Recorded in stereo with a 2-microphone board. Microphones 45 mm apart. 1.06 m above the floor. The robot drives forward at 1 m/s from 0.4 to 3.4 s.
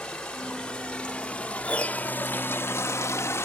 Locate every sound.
0.0 s running water: 15° left (ahead or behind), 3 m; by 3.5 s 65° left (ahead or behind), 0.8 m
1.6 s a piano: 25° left (ahead or behind), 1.0 m; by 2.1 s 45° left (ahead or behind), 0.6 m